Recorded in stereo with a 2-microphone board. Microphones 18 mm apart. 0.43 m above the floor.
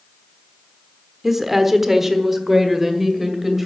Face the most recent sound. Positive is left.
turn(degrees=-15)  # may be behind; listen again after turning